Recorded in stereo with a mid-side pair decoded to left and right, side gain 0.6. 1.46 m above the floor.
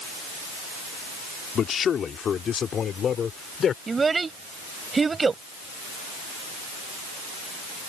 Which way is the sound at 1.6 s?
40° left.